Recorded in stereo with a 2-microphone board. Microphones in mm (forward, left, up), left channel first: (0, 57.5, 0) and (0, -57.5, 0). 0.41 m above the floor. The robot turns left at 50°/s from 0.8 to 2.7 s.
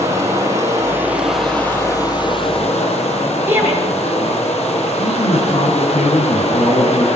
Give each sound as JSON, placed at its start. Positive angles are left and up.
{"t": 0.0, "sound": "running water", "azimuth_deg": -150, "distance_m": 8.0}
{"t": 3.5, "sound": "a shout", "side_deg": -20, "distance_m": 8.0}
{"t": 5.0, "sound": "a man speaking", "side_deg": 65, "distance_m": 6.5}